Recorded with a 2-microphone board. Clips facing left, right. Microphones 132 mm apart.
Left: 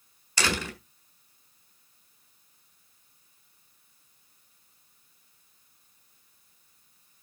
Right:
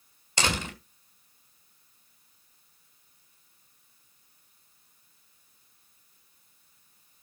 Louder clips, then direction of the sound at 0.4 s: Even; 20° right (ahead or behind).